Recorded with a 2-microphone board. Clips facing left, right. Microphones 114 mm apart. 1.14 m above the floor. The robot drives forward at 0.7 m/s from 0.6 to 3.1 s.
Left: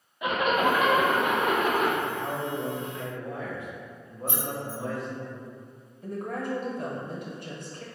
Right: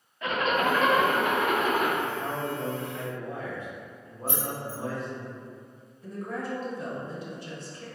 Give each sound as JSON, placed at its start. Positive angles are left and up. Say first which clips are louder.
{"t": 0.2, "sound": "a zipper", "louder": "left 2 dB", "side_deg": 15, "distance_m": 0.5}
{"t": 2.0, "sound": "a man speaking", "louder": "even", "side_deg": 5, "distance_m": 1.7}
{"t": 4.3, "sound": "keys jangling", "louder": "even", "side_deg": 25, "distance_m": 1.7}
{"t": 6.0, "sound": "a woman speaking", "louder": "left 2 dB", "side_deg": 55, "distance_m": 0.9}